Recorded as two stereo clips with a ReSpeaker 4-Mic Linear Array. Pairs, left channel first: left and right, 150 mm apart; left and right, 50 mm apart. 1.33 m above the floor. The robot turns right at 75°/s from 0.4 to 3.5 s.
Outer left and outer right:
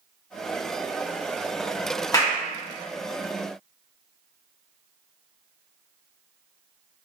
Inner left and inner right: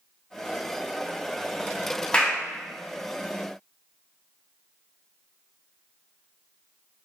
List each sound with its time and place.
2.1 s a clap: 20° left (ahead or behind), 0.6 m; by 2.4 s centre (ahead or behind), 0.6 m